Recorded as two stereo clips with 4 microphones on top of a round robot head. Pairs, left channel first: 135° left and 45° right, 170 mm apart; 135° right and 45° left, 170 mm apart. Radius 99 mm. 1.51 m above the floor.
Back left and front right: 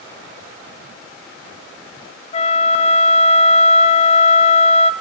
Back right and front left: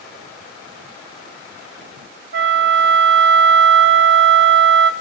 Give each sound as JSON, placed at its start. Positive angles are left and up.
{"t": 2.3, "sound": "a flute", "azimuth_deg": 75, "distance_m": 0.8}